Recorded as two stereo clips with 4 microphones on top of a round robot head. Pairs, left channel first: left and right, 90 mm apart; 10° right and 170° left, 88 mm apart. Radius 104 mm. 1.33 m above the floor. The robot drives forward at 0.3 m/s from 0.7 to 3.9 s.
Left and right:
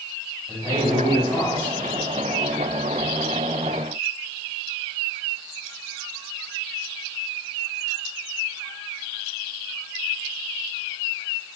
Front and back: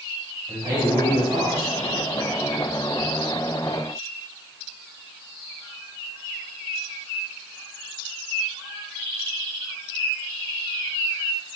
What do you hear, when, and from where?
0.5 s a man speaking: 150° left, 1.7 m; by 1.8 s 155° left, 2 m